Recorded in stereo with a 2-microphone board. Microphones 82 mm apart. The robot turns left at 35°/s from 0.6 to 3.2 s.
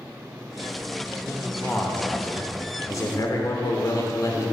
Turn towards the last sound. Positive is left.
turn(degrees=120)